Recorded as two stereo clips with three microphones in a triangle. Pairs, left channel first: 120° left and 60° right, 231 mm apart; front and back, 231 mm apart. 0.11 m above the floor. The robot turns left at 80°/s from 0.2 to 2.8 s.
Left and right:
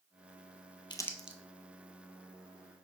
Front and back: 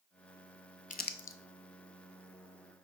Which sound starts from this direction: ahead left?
Crumpling, at 0.9 s.